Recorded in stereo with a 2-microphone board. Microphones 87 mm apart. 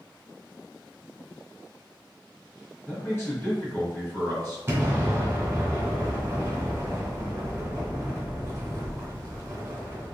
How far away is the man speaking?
About 1.8 m.